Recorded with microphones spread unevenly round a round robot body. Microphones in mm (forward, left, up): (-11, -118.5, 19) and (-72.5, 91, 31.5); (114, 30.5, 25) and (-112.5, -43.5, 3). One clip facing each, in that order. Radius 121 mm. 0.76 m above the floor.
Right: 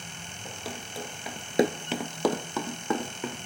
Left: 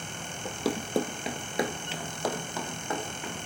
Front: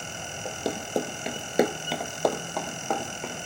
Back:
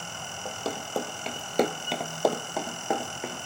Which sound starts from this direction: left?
Running footsteps, at 0.5 s.